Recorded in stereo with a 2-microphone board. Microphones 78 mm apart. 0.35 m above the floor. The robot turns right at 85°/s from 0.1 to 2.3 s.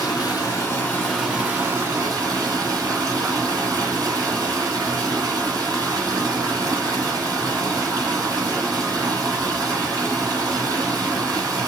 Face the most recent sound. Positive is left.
turn(degrees=-85)